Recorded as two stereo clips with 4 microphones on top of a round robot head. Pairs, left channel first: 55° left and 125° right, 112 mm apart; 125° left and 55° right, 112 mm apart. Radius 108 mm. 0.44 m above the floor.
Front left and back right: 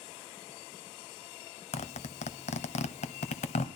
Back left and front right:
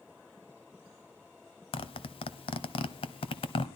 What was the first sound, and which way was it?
A zipper, 80° left.